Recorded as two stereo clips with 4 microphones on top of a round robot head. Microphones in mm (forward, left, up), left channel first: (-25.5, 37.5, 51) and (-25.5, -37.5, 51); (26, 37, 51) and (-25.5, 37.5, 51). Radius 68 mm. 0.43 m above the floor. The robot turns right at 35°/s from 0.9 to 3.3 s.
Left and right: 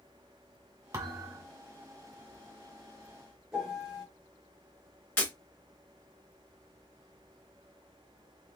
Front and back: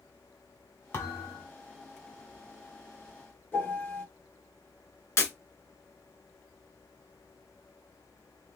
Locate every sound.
0.9 s a thud: 45° right, 1.3 m; by 1.5 s 25° right, 1.3 m
3.5 s a piano: 10° right, 2.0 m
5.2 s breaking glass: 20° left, 2 m